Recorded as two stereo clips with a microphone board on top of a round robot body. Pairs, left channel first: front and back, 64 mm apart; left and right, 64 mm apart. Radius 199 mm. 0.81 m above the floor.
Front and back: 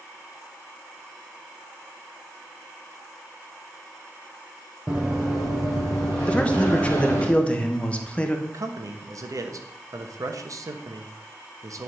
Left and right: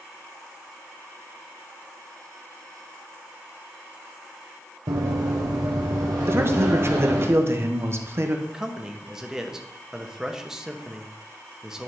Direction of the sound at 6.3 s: 60° right.